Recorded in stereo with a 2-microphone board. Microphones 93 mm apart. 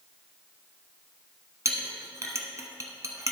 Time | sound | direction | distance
1.6 | a clink | 35° right (ahead or behind) | 0.9 m